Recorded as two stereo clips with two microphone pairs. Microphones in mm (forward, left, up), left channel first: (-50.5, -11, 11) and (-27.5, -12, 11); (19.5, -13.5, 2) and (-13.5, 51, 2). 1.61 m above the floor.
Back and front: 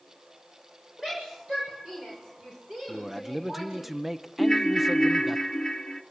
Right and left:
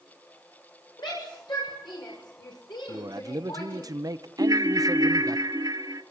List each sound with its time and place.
1.0 s a shout: 65° right, 7.5 m
2.9 s a man speaking: 80° left, 1.1 m
4.4 s a ringtone: 120° left, 1.2 m